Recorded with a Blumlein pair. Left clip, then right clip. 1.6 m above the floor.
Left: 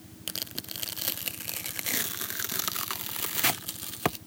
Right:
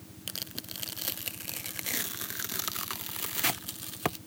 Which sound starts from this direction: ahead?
Tearing paper, at 0.3 s.